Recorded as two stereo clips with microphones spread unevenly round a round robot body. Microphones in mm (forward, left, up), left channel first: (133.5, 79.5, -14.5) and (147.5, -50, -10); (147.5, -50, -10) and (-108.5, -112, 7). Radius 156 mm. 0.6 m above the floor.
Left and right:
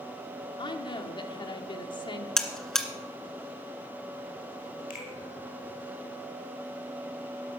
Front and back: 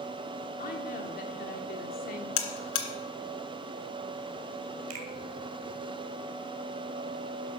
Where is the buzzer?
10° left, 2 m.